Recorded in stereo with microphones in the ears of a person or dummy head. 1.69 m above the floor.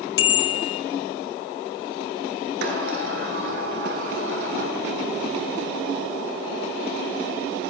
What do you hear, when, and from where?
0.2 s a bicycle bell: 80° left, 5 m
2.6 s a sliding door: 65° right (ahead or behind), 7 m